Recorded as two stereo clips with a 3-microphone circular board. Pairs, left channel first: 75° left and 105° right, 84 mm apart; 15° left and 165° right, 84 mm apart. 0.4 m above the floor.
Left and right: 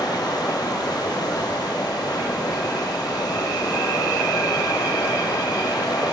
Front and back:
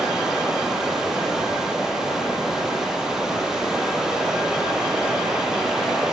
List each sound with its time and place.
0.0 s running water: 110° left, 7.5 m